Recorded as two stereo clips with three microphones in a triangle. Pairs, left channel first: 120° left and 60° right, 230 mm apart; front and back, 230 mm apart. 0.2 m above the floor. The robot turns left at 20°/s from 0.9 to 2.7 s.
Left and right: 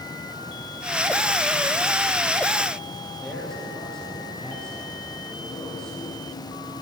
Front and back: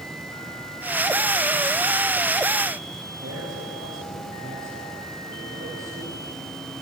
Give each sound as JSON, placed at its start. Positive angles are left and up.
{"t": 3.2, "sound": "a man speaking", "azimuth_deg": -155, "distance_m": 7.0}